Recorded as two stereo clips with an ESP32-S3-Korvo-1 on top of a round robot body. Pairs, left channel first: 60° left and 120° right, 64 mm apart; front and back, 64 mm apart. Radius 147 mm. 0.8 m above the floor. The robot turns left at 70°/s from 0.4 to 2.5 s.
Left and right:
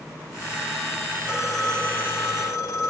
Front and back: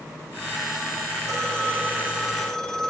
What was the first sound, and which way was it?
A phone ringing, 165° left.